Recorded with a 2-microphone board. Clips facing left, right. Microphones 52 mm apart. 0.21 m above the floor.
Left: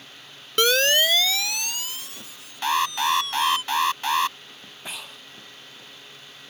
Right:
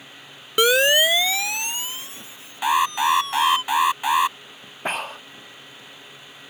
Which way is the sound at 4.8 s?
50° right (ahead or behind).